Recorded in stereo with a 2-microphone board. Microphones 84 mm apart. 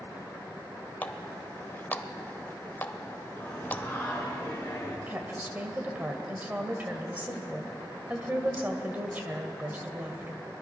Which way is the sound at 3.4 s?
25° left (ahead or behind).